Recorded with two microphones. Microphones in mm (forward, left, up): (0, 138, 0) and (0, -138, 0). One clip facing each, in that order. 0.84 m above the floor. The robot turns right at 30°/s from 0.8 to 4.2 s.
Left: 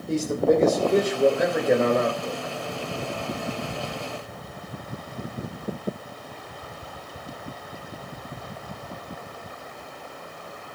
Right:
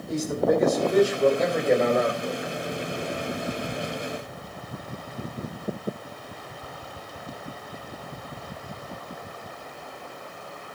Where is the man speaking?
150° left, 3 m; by 2.5 s 160° right, 3 m.